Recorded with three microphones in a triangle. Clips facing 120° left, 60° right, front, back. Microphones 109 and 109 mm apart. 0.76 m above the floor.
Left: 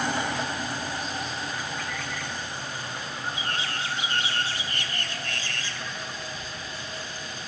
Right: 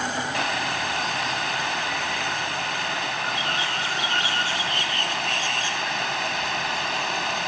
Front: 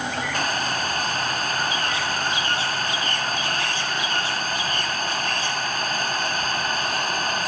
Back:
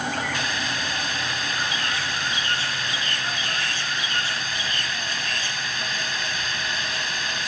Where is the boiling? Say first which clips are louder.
Right 4 dB, front 3 dB; 45° right.